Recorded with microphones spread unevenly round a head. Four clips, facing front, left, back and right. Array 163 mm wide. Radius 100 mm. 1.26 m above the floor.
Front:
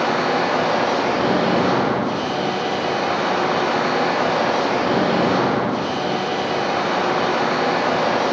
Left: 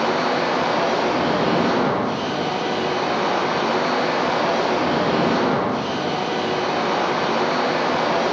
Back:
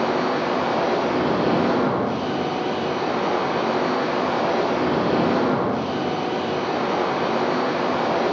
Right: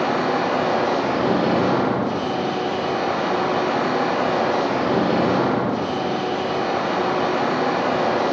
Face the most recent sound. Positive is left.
turn(degrees=-20)